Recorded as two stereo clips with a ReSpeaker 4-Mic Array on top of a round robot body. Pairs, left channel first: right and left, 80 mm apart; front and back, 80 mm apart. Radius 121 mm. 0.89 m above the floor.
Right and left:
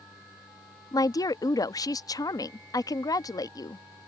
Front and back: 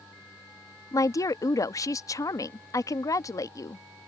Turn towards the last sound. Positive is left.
turn(degrees=-45)